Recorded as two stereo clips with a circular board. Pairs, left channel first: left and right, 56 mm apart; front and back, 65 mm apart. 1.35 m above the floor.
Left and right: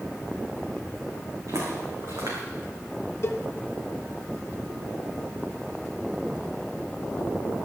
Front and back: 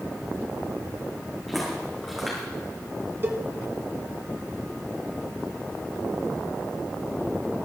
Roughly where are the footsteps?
Right.